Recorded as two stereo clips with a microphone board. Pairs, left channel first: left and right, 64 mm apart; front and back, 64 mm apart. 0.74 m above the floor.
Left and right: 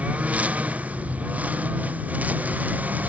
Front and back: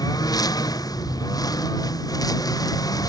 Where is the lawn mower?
20° right; by 3.1 s 25° right.